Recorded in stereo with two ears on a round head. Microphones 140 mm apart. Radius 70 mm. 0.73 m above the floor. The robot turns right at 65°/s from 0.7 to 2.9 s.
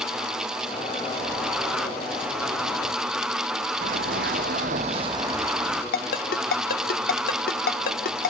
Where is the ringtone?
60° left (ahead or behind), 1.0 m.